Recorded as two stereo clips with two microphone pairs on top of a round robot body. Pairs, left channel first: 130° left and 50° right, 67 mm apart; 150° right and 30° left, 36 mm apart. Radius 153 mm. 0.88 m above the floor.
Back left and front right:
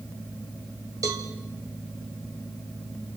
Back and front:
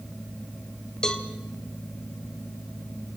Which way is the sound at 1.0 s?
80° right.